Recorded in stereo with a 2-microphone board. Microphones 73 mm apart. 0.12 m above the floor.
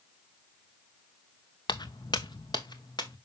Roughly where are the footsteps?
Left.